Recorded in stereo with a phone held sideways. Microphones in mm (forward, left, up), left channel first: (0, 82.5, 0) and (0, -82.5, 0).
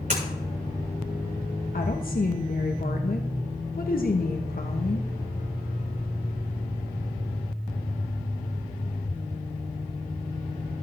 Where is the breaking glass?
55° right (ahead or behind), 7 m.